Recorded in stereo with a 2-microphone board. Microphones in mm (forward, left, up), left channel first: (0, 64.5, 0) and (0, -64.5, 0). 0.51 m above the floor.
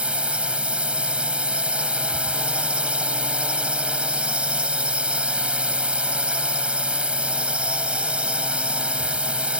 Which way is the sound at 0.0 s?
10° right (ahead or behind).